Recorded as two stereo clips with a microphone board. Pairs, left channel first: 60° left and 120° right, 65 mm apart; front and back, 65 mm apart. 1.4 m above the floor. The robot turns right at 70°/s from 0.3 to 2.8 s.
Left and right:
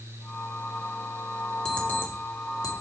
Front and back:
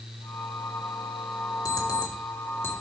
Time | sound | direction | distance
1.6 | an alarm clock | 20° right | 1.8 m